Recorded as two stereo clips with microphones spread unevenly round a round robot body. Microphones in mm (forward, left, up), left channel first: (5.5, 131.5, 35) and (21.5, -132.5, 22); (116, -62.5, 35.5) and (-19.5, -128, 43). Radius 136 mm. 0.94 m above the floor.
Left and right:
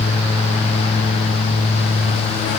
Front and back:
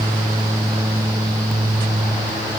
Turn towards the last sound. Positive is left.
No sound to turn to.